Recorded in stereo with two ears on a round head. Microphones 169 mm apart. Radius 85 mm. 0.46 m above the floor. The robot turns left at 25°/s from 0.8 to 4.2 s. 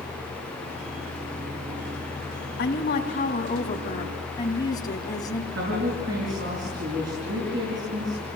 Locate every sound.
2.6 s a woman speaking: 65° left, 3 m; by 5.4 s 25° left, 3 m
5.5 s a woman speaking: 65° right (ahead or behind), 6 m